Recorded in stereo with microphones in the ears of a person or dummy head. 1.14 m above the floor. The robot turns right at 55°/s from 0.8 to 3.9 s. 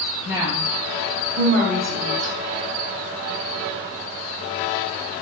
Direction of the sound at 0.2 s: 20° right (ahead or behind).